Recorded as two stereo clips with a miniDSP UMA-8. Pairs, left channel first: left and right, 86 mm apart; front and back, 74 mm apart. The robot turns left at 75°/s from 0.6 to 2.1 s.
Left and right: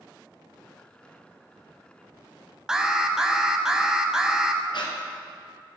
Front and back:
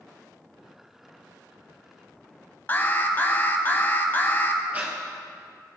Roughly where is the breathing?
Behind left.